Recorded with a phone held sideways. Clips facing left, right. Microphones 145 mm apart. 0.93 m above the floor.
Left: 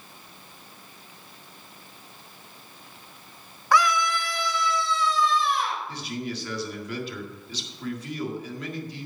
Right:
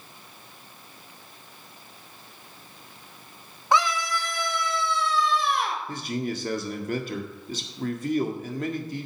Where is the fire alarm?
No fire alarm in this recording.